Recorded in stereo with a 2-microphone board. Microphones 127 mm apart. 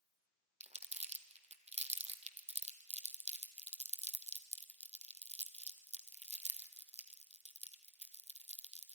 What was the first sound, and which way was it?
Crumpling, 60° right (ahead or behind).